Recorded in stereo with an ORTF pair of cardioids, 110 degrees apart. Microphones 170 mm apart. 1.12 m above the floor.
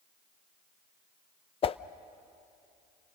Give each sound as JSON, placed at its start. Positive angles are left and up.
{"t": 1.6, "sound": "a whoosh", "azimuth_deg": 35, "distance_m": 0.5}